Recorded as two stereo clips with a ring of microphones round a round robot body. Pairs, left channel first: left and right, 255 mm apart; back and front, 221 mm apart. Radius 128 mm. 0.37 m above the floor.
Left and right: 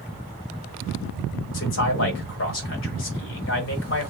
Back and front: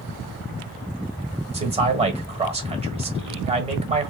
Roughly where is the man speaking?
Ahead left.